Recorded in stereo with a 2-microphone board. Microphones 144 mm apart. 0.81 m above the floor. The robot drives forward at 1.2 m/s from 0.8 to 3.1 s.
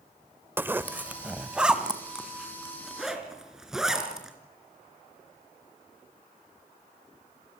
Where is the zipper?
15° right (ahead or behind), 0.7 m; by 4.3 s 5° right (ahead or behind), 3.5 m.